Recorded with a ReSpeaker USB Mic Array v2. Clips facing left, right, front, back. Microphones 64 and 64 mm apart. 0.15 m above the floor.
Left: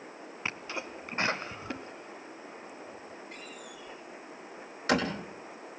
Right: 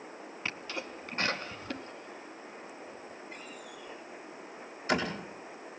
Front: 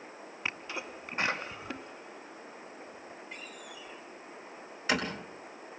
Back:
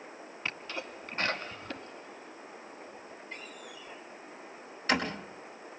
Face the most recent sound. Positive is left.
turn(degrees=85)